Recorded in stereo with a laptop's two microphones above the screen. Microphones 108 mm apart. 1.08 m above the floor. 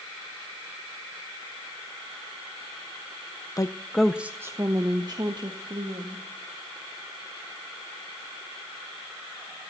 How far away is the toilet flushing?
I don't hear a toilet flushing.